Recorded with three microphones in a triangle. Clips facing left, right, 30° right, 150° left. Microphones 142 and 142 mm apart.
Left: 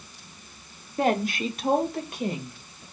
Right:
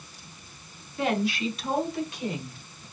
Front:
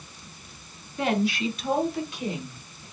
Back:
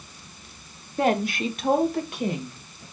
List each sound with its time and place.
1.0 s a woman speaking: 120° left, 0.9 m; by 2.8 s 125° left, 2.5 m